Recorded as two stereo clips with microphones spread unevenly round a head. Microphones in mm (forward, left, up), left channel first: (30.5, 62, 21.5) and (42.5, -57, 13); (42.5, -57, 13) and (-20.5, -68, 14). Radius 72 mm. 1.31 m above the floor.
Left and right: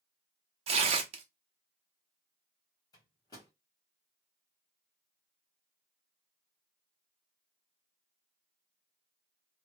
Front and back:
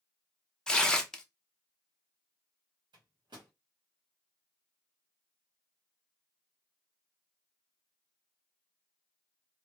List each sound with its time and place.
0.7 s tearing paper: 65° right, 0.5 m
2.9 s a microwave: 160° left, 0.9 m